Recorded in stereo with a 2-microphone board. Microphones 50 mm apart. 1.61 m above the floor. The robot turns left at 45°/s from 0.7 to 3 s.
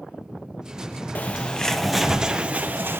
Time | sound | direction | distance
1.1 | a bird | 35° left | 0.9 m